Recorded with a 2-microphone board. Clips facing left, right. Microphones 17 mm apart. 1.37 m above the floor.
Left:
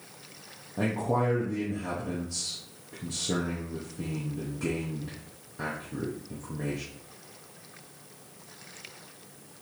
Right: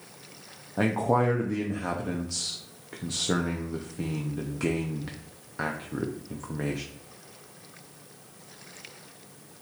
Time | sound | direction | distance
0.8 | a man speaking | 65° right (ahead or behind) | 0.6 m